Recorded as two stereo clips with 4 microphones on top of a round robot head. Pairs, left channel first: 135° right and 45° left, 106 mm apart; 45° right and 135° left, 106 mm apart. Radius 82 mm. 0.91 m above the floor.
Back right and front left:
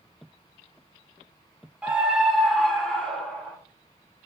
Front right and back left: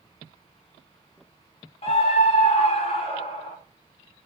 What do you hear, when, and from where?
1.8 s a scream: 35° right, 2 m; by 3.6 s 60° right, 3.5 m